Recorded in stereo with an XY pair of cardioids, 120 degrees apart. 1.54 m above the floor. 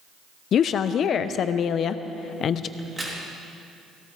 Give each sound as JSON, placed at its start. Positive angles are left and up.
{"t": 0.5, "sound": "a woman speaking", "azimuth_deg": 55, "distance_m": 0.7}
{"t": 2.8, "sound": "a crack", "azimuth_deg": -15, "distance_m": 3.0}